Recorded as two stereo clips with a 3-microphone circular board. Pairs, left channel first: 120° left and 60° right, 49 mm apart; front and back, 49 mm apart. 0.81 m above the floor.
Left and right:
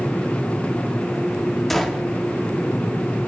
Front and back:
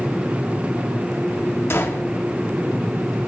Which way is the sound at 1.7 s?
30° left.